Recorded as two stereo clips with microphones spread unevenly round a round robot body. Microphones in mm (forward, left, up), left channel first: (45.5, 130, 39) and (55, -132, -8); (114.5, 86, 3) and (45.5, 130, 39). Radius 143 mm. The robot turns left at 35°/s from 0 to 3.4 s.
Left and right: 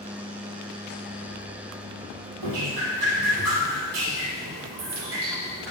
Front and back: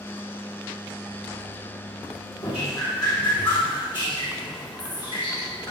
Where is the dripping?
100° right, 5 m; by 5.7 s 135° right, 5 m.